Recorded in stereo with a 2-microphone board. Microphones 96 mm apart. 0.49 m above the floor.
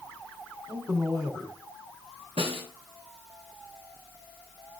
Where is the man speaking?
40° right (ahead or behind), 3 m.